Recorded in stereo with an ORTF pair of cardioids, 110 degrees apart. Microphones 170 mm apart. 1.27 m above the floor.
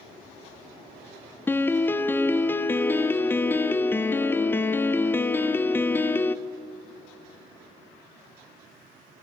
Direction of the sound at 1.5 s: 10° left.